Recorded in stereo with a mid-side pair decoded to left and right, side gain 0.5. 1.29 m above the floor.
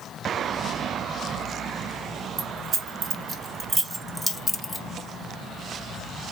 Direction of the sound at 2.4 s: 60° right.